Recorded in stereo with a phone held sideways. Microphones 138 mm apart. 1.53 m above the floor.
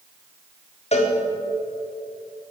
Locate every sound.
0.9 s a cowbell: 50° left (ahead or behind), 4 m